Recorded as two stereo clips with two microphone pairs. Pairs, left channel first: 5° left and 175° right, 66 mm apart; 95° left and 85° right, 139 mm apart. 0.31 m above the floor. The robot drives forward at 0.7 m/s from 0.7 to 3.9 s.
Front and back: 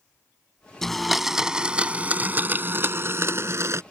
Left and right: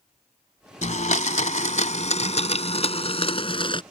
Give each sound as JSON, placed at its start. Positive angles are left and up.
{"t": 0.8, "sound": "a blender", "azimuth_deg": 85}